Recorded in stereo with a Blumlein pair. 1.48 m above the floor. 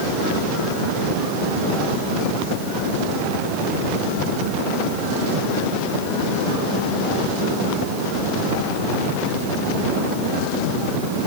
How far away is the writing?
I don't hear writing.